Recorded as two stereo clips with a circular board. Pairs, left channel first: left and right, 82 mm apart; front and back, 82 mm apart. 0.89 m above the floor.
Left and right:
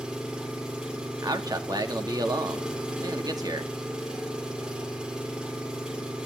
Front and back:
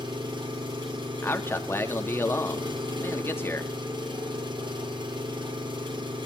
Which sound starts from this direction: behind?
An engine running, at 0.0 s.